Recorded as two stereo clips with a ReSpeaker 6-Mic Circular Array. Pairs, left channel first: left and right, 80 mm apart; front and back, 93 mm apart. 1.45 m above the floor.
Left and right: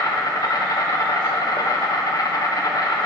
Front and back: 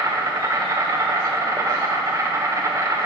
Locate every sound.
0.0 s an insect: 130° left, 1.1 m